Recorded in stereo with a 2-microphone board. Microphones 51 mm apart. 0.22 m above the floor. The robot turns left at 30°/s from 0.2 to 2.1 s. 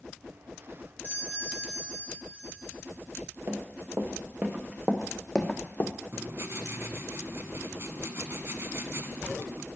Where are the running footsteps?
45° right (ahead or behind), 1.6 m; by 5.9 s 40° left (ahead or behind), 0.8 m.